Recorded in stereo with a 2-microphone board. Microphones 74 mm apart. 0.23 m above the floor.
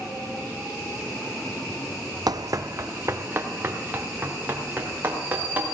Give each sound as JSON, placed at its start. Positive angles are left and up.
{"t": 2.3, "sound": "running footsteps", "side_deg": -65, "distance_m": 0.6}